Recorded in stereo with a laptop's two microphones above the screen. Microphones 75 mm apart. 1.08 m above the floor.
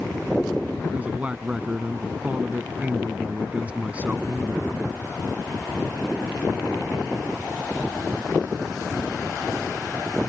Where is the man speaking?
20° right (ahead or behind).